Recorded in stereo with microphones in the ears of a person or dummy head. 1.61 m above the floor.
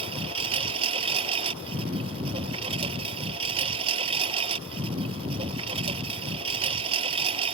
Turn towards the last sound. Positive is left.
turn(degrees=-35)  # may be behind; listen again after turning